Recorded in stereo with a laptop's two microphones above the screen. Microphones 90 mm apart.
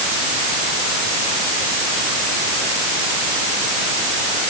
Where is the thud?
I don't hear a thud.